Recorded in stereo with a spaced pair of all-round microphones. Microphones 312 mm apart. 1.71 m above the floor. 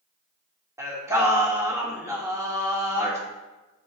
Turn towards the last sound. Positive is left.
turn(degrees=-10)  # may be behind; listen again after turning